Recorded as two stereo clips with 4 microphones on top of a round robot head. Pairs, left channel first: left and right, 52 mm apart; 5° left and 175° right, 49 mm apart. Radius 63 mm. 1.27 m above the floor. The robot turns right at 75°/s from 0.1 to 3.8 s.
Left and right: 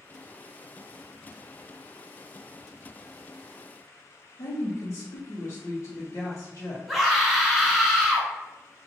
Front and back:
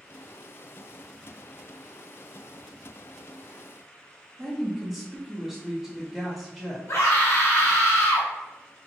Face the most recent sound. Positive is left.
turn(degrees=0)